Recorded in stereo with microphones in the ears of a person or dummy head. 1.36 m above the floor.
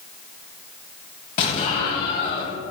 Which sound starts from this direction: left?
An explosion, at 1.4 s.